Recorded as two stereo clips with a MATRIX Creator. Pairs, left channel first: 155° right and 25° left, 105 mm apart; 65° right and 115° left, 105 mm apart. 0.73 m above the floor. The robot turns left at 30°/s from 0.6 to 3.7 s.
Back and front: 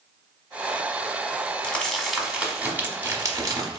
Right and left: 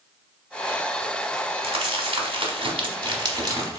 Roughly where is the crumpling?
Behind left.